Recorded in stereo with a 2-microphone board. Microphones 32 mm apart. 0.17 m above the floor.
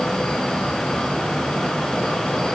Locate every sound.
Only background noise.